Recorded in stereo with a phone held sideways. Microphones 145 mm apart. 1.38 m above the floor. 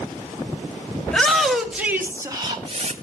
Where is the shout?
5° left (ahead or behind), 2.5 m; by 2.9 s 50° right (ahead or behind), 1.6 m.